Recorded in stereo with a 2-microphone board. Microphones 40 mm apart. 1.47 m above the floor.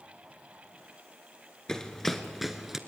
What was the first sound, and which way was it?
Running footsteps, 15° left (ahead or behind).